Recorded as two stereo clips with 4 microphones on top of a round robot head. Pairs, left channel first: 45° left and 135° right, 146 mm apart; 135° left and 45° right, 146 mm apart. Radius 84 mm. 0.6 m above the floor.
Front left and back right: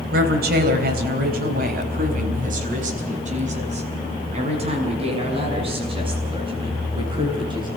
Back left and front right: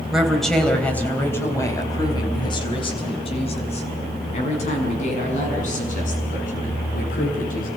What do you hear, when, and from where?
0.1 s a woman speaking: 130° right, 3.5 m; by 7.7 s 165° left, 9 m